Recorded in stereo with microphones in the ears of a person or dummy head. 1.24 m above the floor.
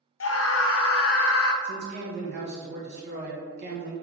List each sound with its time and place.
0.2 s a scream: 70° left (ahead or behind), 0.5 m
1.6 s a man speaking: 50° right (ahead or behind), 1.1 m